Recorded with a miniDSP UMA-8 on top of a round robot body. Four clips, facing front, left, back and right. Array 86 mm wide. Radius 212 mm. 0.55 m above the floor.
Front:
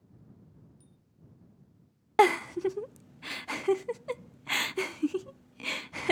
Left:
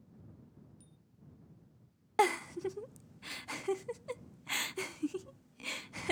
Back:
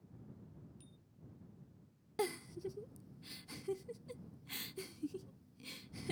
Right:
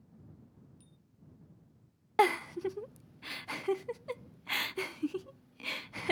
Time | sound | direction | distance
0.8 | a bicycle bell | 160° right | ?
2.2 | a giggle | 15° right | ?